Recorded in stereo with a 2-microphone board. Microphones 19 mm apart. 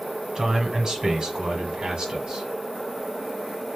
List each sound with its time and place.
0.3 s a man speaking: 30° right (ahead or behind), 1.5 m; by 2.5 s 55° right (ahead or behind), 1.7 m